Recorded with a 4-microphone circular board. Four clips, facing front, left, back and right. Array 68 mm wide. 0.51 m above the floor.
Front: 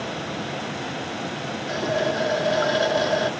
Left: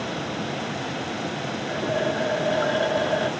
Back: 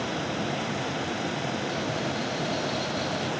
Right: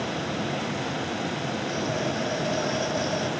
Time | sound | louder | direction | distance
1.7 | a running tap | left 5 dB, front 6 dB | 30° left | ?